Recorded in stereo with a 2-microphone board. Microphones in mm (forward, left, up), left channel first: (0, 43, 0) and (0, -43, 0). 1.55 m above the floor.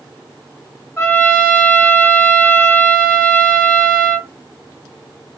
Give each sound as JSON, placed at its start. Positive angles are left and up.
{"t": 1.0, "sound": "a trumpet", "side_deg": 30, "distance_m": 1.0}